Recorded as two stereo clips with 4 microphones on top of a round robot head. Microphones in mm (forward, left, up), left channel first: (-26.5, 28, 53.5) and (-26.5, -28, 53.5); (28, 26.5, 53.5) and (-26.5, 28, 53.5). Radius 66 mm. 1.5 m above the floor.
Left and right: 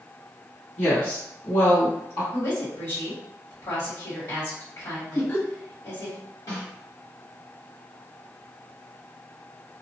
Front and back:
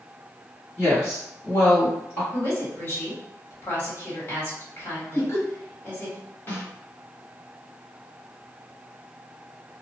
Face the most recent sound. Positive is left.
turn(degrees=55)